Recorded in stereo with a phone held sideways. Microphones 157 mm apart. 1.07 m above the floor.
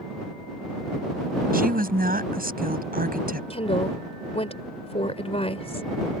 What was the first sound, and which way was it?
A woman speaking, 65° right (ahead or behind).